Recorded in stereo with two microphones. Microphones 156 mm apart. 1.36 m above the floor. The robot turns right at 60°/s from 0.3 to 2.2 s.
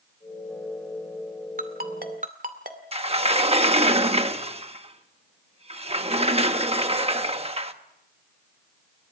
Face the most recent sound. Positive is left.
turn(degrees=-40)  # may be behind; listen again after turning